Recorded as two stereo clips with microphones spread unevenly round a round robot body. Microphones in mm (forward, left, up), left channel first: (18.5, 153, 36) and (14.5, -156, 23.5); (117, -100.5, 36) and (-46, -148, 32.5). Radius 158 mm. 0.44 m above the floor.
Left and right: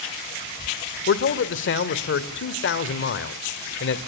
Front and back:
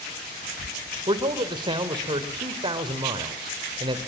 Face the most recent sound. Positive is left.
turn(degrees=135)